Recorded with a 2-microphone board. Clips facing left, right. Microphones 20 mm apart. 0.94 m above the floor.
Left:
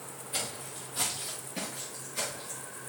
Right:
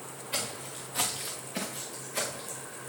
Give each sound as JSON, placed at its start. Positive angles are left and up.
{"t": 0.3, "sound": "footsteps", "side_deg": -50, "distance_m": 5.5}